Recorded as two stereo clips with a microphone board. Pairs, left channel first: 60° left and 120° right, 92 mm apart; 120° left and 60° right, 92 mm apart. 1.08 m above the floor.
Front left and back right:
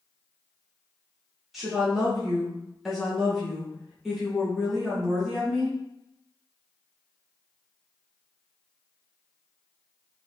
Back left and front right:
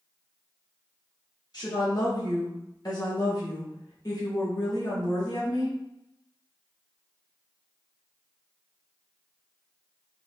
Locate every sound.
1.5 s a woman speaking: 155° left, 1.4 m